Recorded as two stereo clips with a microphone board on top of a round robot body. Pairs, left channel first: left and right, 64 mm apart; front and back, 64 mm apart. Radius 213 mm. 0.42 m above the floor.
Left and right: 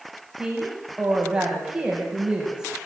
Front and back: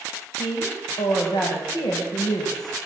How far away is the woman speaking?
About 4 m.